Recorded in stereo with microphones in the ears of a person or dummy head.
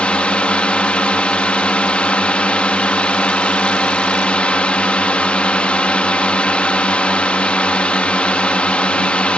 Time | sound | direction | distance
0.0 | a drone | 10° left (ahead or behind) | ?